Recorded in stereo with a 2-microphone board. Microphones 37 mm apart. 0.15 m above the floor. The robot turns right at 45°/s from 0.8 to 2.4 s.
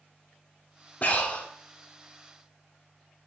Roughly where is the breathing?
Left.